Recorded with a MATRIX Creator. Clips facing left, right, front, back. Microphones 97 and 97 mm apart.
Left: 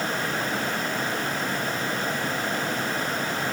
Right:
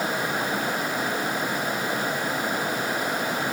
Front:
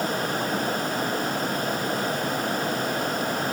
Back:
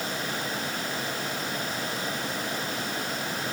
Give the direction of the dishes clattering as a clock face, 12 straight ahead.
I don't hear dishes clattering.